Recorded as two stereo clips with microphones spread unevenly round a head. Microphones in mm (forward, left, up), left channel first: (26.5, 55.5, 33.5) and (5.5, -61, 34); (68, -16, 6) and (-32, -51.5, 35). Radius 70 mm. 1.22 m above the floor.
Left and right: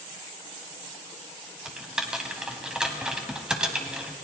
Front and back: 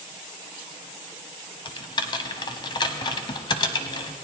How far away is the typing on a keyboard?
About 1.2 m.